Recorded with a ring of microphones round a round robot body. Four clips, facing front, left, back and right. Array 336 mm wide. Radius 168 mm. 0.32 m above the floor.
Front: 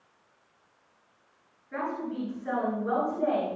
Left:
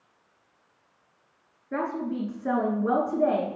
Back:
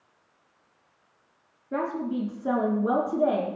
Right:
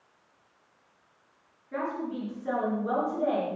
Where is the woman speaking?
140° left, 4.5 m.